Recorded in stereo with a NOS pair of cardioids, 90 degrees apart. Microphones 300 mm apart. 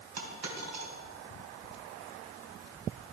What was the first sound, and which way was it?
A dropped coin, 55° right.